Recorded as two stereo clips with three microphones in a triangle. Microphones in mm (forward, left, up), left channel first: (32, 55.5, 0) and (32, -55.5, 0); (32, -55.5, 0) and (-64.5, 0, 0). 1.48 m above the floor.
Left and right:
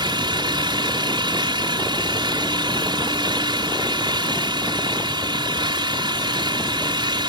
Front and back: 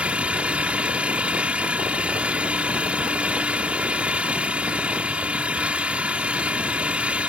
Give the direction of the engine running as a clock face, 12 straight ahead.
4 o'clock.